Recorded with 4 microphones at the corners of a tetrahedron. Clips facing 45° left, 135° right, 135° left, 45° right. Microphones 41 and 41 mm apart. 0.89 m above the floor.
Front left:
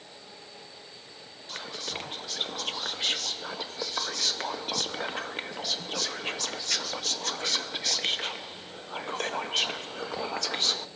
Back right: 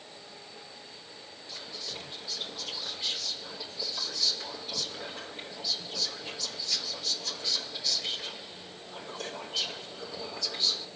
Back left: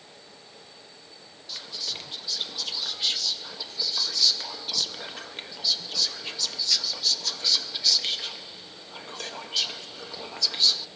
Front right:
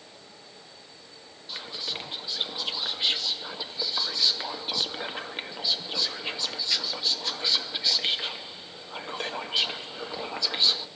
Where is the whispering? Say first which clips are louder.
Front left 5 dB, front right 1 dB; 20° left, 0.7 m.